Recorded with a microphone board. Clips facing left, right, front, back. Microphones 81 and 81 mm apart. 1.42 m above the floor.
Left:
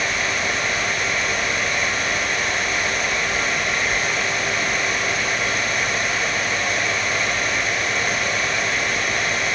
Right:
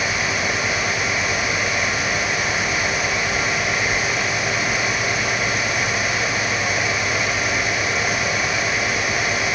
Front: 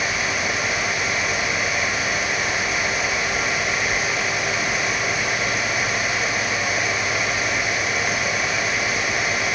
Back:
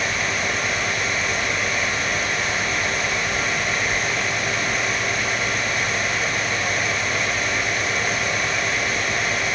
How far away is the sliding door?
No sliding door in this recording.